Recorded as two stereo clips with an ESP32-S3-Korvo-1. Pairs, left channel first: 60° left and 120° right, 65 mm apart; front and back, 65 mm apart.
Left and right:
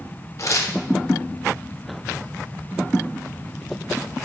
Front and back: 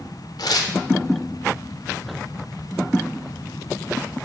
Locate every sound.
0.4 s tearing paper: 20° left, 0.5 m